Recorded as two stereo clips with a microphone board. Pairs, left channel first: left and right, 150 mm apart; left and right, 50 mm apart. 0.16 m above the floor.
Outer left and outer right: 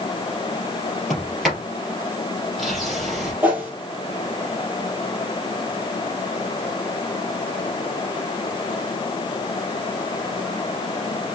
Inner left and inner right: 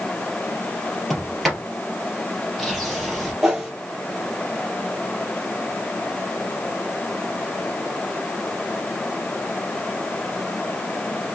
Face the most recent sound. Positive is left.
turn(degrees=-10)  # may be behind; listen again after turning